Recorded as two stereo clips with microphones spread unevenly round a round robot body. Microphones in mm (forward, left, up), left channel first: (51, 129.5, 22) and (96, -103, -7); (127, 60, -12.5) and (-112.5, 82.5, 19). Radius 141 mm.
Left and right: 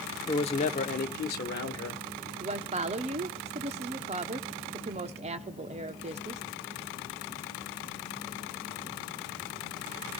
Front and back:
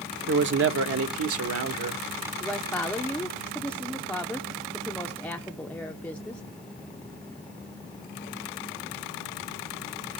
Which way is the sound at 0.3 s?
165° left.